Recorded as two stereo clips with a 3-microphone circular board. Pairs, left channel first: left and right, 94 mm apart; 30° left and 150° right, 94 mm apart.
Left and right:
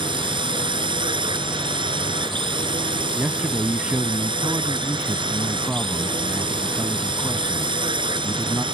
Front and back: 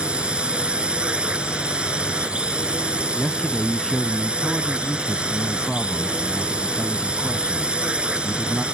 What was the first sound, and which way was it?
A drone, 70° right.